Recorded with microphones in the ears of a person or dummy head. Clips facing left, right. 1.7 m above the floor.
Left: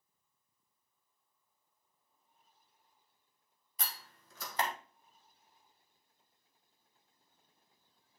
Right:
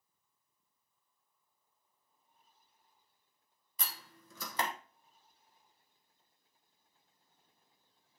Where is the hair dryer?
No hair dryer in this recording.